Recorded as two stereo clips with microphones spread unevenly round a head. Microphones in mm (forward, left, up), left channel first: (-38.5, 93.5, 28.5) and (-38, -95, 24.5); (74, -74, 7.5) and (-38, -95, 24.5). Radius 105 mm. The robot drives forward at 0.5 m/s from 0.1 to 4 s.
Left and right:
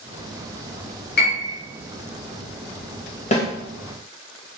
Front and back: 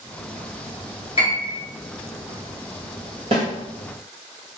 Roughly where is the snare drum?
Behind left.